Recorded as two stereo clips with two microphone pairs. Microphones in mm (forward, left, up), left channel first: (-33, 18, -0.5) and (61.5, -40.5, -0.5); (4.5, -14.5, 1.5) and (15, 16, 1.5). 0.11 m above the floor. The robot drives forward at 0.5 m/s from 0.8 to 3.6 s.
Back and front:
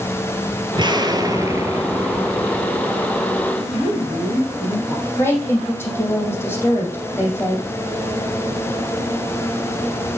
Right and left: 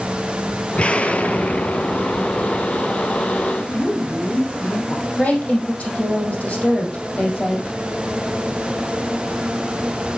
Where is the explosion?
70° right, 1.3 m; by 3.4 s 130° right, 1.6 m.